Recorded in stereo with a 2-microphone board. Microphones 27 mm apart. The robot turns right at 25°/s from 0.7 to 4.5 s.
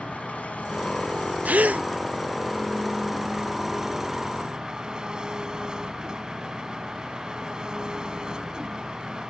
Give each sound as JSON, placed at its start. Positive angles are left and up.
{"t": 0.0, "sound": "an engine running", "azimuth_deg": 115}
{"t": 1.4, "sound": "a gasp", "side_deg": -75}